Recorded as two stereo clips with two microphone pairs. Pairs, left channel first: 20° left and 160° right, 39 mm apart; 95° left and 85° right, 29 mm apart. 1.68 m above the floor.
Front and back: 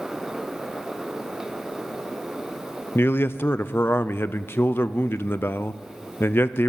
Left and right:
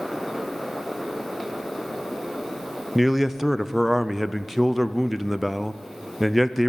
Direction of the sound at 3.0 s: Straight ahead.